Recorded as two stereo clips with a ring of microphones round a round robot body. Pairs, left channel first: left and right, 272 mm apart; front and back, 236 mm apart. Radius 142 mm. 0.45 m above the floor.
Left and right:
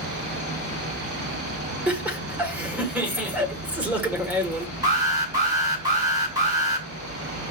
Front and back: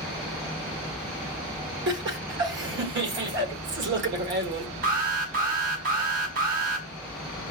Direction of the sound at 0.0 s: 90° right.